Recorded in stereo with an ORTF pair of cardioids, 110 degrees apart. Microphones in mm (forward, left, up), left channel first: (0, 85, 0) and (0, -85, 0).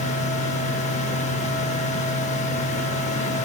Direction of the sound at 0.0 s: 45° left.